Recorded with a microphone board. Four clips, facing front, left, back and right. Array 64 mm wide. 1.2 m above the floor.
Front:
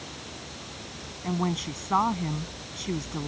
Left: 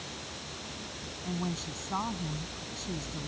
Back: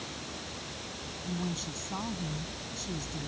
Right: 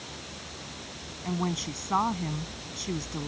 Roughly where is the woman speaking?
Ahead right.